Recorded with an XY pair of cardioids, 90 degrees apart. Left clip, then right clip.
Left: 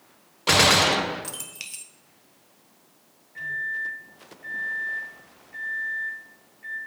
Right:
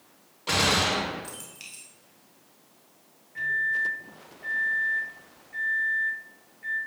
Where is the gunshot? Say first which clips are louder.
Left 6 dB; 65° left, 1.0 m.